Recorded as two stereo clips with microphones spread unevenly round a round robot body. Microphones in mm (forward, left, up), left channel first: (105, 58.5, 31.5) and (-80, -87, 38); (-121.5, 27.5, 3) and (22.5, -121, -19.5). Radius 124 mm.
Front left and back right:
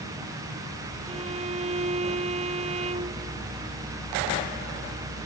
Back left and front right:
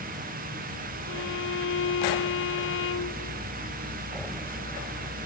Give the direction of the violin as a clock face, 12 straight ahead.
7 o'clock.